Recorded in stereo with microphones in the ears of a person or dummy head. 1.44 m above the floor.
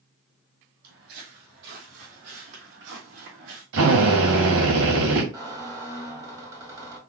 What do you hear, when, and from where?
0.8 s footsteps: 50° right (ahead or behind), 3 m; by 3.6 s 65° right (ahead or behind), 3.5 m
3.7 s a drill: 70° right (ahead or behind), 3 m
5.3 s a squeak: 20° right (ahead or behind), 1.8 m